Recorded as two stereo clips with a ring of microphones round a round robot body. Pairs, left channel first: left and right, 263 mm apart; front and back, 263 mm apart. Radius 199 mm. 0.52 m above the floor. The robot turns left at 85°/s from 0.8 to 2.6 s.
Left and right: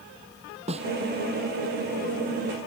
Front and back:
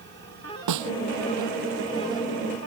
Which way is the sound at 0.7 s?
165° right.